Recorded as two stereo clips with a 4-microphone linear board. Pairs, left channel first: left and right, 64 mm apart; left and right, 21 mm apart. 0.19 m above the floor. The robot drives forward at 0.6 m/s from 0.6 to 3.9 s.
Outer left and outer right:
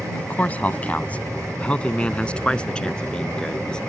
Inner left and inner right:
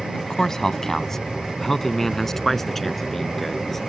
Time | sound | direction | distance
0.1 | a man speaking | 25° left (ahead or behind) | ?